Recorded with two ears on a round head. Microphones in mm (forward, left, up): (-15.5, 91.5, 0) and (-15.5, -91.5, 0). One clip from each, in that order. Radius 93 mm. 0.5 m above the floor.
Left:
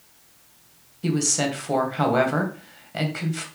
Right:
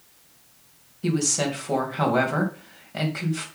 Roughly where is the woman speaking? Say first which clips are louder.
Left 1 dB; centre.